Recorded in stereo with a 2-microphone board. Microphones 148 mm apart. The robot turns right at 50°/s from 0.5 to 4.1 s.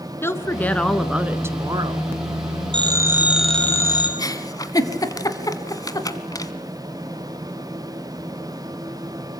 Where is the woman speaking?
155° left, 1.6 m; by 2.1 s 125° right, 1.6 m.